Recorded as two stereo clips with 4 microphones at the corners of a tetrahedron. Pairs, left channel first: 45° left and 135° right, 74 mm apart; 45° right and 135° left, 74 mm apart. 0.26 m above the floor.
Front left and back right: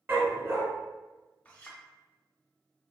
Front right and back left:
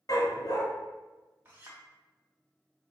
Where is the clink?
100° left, 0.9 m.